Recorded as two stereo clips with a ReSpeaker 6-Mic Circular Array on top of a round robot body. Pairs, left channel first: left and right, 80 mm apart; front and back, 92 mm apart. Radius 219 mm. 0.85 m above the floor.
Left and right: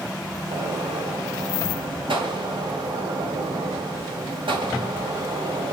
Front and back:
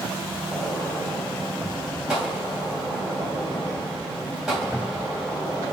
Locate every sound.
0.5 s a gunshot: 95° right, 3 m